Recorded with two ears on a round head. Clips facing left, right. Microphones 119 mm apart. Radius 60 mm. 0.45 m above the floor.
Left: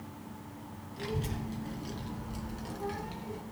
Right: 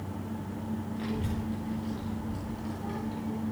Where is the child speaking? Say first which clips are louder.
Left 1 dB; 45° left (ahead or behind), 3.5 m; by 3.4 s 75° left (ahead or behind), 3 m.